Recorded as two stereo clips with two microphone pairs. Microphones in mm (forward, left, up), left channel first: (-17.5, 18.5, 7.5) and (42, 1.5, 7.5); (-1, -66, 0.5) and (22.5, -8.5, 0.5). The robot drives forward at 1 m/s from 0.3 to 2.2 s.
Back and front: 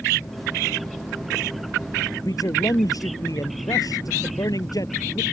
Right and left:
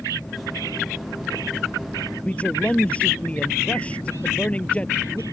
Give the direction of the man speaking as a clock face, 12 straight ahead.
6 o'clock.